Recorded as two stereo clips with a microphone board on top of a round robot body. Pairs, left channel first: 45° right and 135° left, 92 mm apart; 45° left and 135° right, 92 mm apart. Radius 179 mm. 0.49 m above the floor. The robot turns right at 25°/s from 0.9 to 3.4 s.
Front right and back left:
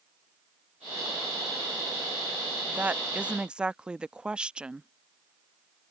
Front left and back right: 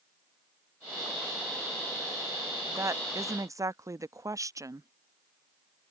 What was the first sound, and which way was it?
A woman speaking, 170° right.